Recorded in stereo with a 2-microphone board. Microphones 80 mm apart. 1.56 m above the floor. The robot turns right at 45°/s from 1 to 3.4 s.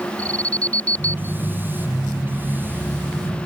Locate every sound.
0.2 s an alarm: 15° left (ahead or behind); by 1.4 s 30° left (ahead or behind)